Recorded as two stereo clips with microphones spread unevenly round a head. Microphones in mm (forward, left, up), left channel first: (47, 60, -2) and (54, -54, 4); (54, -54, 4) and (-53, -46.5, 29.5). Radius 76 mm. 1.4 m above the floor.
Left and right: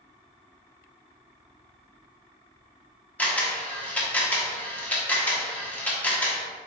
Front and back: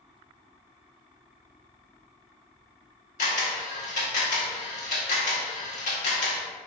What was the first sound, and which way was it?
A camera shutter, 15° left.